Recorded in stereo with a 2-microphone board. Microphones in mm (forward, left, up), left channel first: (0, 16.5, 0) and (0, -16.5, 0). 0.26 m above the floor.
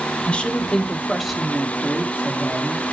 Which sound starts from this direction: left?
A woman speaking, at 0.3 s.